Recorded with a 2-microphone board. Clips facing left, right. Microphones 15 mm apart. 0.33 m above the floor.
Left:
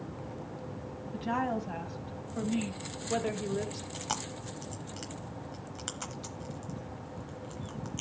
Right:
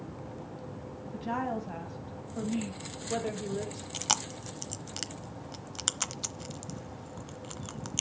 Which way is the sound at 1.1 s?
20° left (ahead or behind).